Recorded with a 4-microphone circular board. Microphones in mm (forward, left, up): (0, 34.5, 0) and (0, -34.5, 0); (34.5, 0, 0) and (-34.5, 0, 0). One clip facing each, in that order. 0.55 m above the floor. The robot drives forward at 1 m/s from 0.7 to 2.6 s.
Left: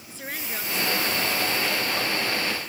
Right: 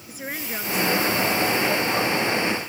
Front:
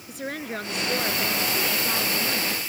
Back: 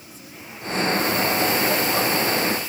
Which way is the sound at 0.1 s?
15° right.